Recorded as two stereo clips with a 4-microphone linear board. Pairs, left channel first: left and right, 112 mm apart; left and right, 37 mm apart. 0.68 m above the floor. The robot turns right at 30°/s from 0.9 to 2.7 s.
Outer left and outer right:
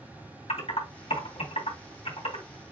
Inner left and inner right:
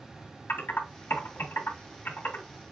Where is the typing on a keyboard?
80° left, 2.5 m; by 2.5 s 55° left (ahead or behind), 2.5 m.